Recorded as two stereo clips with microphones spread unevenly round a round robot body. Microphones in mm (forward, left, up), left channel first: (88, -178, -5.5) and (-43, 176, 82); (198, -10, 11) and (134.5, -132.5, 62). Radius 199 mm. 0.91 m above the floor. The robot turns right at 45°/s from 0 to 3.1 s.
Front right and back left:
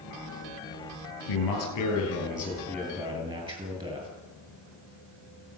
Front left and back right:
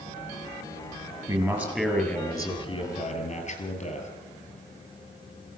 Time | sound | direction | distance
1.3 | a man speaking | 50° right | 9 m